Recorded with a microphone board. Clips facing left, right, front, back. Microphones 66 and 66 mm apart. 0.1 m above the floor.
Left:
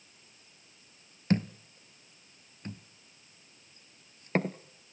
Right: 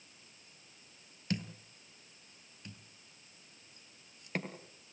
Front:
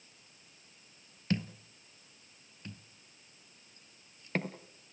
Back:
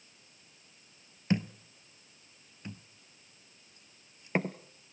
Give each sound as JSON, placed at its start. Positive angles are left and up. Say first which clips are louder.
{"t": 1.3, "sound": "a thud", "louder": "left 9 dB, back 3 dB", "azimuth_deg": 120, "distance_m": 1.0}